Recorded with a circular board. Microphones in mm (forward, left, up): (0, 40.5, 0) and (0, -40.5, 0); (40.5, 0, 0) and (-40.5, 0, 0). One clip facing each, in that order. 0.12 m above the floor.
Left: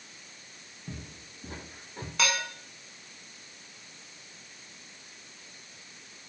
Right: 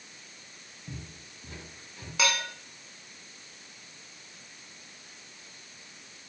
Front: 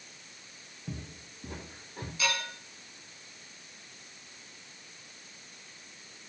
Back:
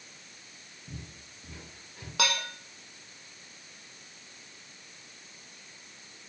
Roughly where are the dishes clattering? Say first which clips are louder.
Right 1 dB, back 3 dB; behind.